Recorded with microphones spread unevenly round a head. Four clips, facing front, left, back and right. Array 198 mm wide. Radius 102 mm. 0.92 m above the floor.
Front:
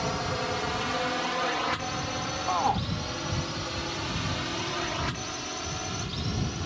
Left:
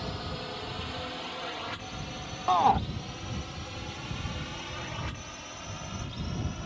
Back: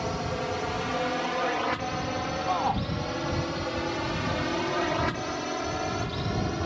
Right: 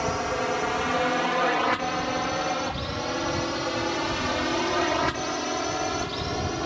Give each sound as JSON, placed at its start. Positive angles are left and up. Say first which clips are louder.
{"t": 0.0, "sound": "a drone", "louder": "right 12 dB, even", "azimuth_deg": -85}
{"t": 2.5, "sound": "a shout", "louder": "left 6 dB, front 1 dB", "azimuth_deg": 70}